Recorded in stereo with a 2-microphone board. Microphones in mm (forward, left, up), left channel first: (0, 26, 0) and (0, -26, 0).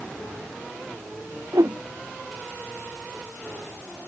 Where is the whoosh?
80° right.